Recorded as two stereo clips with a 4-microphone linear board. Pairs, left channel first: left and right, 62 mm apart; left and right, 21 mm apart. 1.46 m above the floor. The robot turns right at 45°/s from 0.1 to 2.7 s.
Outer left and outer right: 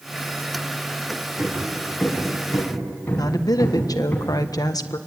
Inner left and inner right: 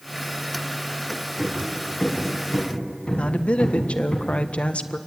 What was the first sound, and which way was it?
Hammering, 30° right (ahead or behind).